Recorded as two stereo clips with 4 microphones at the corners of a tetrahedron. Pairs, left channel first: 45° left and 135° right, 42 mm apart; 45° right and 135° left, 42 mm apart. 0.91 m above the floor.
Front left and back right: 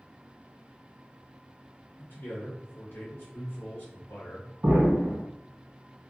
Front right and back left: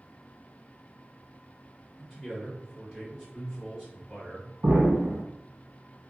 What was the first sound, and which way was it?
A man speaking, 50° left.